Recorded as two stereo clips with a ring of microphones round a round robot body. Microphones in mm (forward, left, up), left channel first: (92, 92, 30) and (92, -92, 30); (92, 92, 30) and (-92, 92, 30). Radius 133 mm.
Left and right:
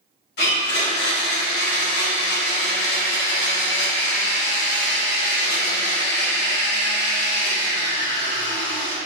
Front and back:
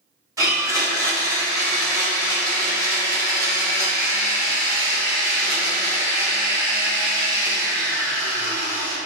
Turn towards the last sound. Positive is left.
turn(degrees=110)